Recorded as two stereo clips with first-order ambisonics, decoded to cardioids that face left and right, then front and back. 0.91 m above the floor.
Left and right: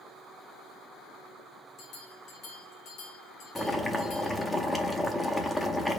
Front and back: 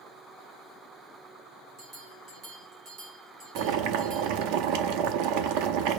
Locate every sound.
1.8 s a bell: 140° left, 2 m
3.5 s boiling: 175° left, 0.6 m